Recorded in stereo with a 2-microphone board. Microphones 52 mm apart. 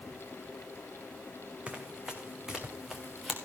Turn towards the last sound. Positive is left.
turn(degrees=-5)  # may be behind; listen again after turning